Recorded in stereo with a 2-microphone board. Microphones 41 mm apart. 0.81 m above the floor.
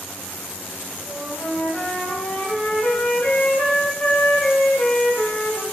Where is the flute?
20° left (ahead or behind), 3 m.